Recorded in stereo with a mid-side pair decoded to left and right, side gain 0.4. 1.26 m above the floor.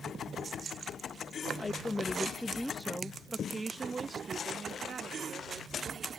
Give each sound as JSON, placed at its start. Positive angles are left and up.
{"t": 1.6, "sound": "a woman speaking", "azimuth_deg": 30}